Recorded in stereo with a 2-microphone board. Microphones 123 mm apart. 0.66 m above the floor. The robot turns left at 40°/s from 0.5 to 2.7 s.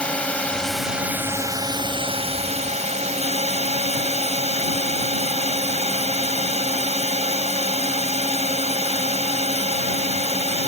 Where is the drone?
10° left; by 10.7 s 75° right.